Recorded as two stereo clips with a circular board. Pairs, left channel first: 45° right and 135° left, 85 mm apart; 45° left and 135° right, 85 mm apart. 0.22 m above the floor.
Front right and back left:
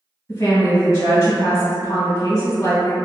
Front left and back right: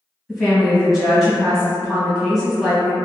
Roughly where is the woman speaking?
Ahead right.